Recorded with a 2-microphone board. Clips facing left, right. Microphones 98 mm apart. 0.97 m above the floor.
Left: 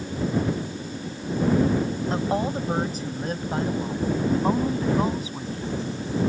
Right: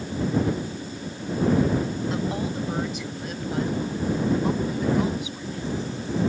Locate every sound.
2.1 s a woman speaking: 40° left (ahead or behind)